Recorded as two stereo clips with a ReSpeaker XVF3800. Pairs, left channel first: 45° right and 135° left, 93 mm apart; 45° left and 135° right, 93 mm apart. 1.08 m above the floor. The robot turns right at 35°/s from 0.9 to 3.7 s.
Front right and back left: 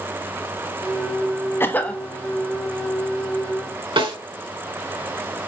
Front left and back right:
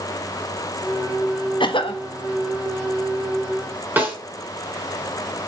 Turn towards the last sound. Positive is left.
turn(degrees=155)